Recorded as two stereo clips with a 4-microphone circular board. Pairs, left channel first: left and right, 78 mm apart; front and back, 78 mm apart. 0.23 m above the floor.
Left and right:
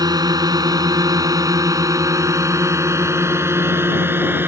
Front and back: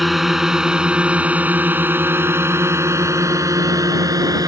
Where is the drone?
90° right; by 4.5 s 150° right.